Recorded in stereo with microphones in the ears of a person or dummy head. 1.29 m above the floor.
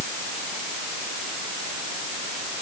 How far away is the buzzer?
No buzzer in this recording.